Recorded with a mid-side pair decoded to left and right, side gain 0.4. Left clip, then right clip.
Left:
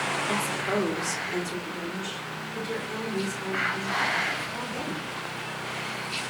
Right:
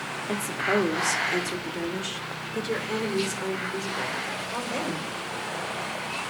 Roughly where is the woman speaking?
Ahead.